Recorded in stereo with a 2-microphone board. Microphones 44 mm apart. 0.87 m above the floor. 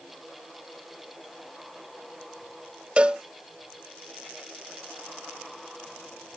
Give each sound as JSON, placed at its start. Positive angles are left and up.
{"t": 3.0, "sound": "a cowbell", "side_deg": -25}